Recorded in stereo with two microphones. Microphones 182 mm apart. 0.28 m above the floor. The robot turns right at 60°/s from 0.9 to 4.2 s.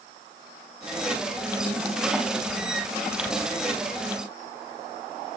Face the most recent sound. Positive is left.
No sound to turn to.